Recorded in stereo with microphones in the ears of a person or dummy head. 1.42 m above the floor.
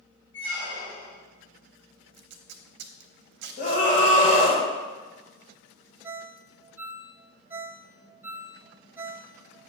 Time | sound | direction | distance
0.3 | a squeak | 50° left (ahead or behind) | 3.5 m
2.1 | tape being pulled | 55° right (ahead or behind) | 0.7 m
3.6 | a scream | 45° left (ahead or behind) | 1.9 m
6.0 | a ringtone | 15° right (ahead or behind) | 0.6 m